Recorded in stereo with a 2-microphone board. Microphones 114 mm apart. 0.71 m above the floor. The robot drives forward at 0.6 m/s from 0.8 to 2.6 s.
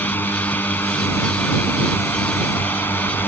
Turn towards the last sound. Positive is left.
turn(degrees=15)  # may be behind; listen again after turning